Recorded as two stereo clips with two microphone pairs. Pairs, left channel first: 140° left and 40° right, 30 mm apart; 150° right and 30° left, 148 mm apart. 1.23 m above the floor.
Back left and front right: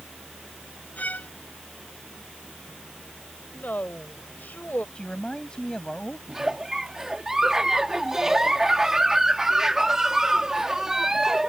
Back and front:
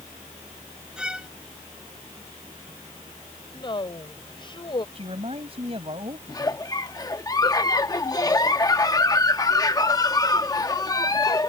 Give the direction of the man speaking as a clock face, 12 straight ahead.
9 o'clock.